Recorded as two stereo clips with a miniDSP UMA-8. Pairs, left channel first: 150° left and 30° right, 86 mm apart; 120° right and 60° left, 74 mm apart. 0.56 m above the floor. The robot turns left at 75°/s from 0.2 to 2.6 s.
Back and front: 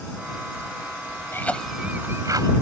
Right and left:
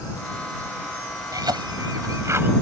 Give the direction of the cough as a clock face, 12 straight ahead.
9 o'clock.